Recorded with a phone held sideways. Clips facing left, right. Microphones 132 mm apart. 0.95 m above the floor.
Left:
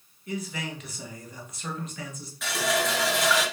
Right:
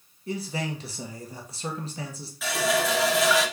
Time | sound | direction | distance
0.3 | a man speaking | 30° right (ahead or behind) | 0.9 m
2.4 | a running tap | 5° right (ahead or behind) | 0.8 m